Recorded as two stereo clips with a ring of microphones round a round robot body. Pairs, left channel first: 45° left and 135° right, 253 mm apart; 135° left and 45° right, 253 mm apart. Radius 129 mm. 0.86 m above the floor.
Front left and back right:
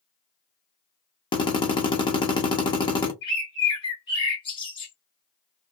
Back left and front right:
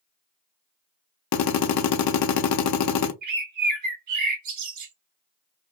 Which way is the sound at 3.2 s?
30° right.